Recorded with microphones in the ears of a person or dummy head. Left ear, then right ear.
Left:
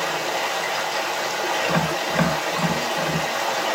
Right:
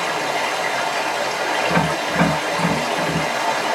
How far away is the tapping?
About 1.5 m.